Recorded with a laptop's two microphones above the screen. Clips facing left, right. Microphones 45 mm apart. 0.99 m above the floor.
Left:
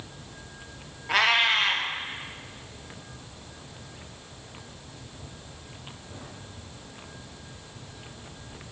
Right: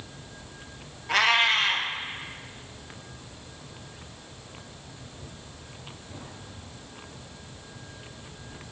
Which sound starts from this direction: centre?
A cat meowing, at 1.1 s.